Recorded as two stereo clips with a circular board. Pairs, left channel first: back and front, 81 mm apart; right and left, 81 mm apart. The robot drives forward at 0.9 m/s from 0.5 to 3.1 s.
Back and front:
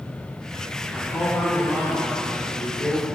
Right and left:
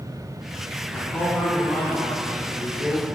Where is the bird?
No bird in this recording.